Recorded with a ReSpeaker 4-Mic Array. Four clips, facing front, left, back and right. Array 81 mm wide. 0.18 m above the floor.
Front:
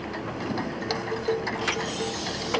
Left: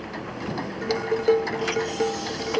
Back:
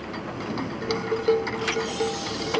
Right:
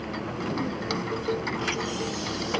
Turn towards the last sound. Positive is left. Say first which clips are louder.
# left 7 dB, back 8 dB
turn(degrees=115)